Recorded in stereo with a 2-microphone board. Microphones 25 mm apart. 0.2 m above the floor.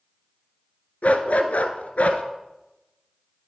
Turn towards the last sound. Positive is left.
turn(degrees=65)  # may be behind; listen again after turning